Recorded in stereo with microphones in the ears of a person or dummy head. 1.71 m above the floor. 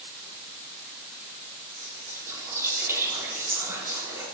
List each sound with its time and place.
1.7 s whispering: 10° right (ahead or behind), 5.5 m